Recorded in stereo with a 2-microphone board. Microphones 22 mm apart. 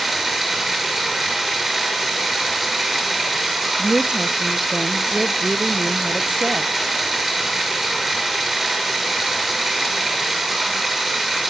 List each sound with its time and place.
0.0 s running water: 10° right (ahead or behind), 6.5 m
3.8 s a woman speaking: 50° right (ahead or behind), 0.6 m